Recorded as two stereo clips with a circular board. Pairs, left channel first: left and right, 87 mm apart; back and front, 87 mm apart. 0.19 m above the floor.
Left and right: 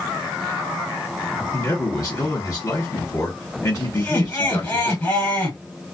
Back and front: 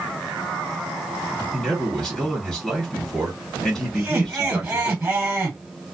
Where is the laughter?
60° left, 1.8 m.